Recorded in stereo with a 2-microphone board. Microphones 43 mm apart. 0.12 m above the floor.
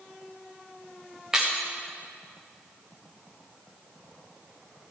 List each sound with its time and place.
1.3 s breaking glass: 10° right (ahead or behind), 2.5 m